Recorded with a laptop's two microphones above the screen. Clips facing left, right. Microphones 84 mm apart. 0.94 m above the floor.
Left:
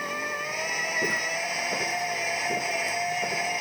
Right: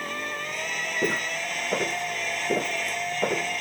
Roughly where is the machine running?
Centre.